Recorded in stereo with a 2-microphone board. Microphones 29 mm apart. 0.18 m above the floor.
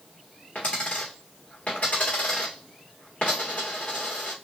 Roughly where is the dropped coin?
Left.